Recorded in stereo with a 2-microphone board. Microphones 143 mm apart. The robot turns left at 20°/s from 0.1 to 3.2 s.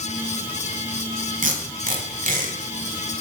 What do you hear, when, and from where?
1.4 s tape being pulled: 65° right (ahead or behind), 0.7 m; by 2.5 s 60° right (ahead or behind), 0.7 m